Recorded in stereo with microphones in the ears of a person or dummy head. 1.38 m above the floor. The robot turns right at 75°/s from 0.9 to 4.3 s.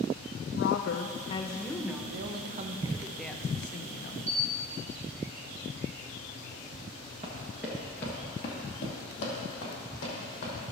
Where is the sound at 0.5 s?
110° left, 0.9 m; by 2.0 s 165° right, 0.9 m.